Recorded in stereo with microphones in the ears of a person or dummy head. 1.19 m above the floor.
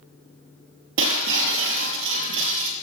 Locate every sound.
1.0 s breaking glass: 70° right (ahead or behind), 5 m